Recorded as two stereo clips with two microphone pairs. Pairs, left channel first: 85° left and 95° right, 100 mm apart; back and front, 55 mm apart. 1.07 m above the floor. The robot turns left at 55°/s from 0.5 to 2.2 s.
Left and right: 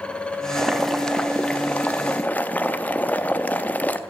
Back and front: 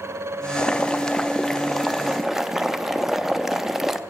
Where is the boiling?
170° left, 0.5 m; by 4.0 s 80° left, 0.5 m.